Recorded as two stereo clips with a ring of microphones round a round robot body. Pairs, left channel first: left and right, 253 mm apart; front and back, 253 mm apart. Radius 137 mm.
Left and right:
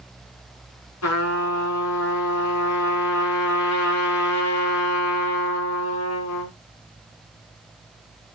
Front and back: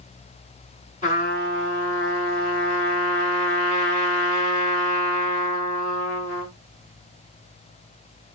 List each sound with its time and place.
1.0 s a trumpet: 65° left, 6 m